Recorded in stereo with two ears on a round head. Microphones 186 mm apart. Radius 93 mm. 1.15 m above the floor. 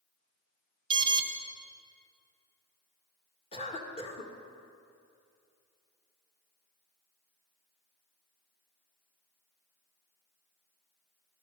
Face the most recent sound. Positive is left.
turn(degrees=30)  # may be behind; listen again after turning